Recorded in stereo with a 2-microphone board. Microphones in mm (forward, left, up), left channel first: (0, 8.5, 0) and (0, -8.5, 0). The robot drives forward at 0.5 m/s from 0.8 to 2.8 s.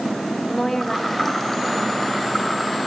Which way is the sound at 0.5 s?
5° left (ahead or behind).